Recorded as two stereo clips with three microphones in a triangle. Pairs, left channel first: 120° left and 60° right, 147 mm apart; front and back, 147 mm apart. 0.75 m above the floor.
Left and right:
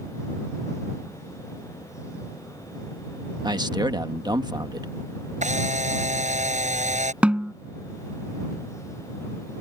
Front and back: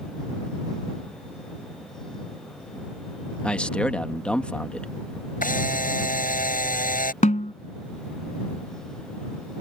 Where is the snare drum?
25° left.